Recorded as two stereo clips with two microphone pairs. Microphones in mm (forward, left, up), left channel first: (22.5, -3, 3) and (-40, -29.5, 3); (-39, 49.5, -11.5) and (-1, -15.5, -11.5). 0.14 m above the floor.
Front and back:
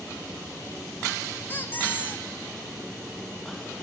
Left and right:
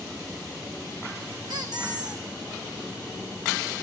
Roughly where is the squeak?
Ahead right.